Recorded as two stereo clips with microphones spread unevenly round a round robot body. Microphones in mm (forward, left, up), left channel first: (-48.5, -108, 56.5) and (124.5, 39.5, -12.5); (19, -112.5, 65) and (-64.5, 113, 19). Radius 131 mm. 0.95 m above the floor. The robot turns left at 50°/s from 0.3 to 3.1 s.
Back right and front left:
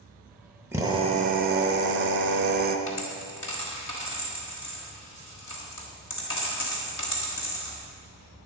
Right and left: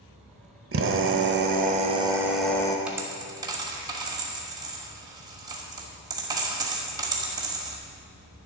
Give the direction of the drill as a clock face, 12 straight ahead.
8 o'clock.